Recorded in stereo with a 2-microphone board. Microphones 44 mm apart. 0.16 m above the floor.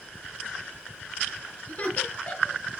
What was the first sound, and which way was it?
Laughter, 35° left (ahead or behind).